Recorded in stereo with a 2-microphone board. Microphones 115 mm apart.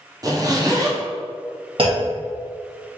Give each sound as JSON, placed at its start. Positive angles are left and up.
{"t": 0.2, "sound": "a zipper", "side_deg": -35, "distance_m": 0.9}
{"t": 1.8, "sound": "a clunk", "side_deg": -50, "distance_m": 1.5}